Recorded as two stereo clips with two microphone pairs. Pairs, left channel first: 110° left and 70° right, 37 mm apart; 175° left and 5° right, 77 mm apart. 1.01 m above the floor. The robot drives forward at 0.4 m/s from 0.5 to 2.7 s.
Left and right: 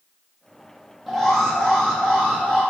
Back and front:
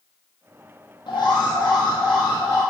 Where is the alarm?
170° right, 0.9 m; by 2.6 s 175° right, 1.5 m.